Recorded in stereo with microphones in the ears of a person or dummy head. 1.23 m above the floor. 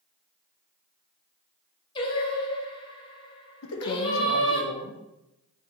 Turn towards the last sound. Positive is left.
turn(degrees=65)  # may be behind; listen again after turning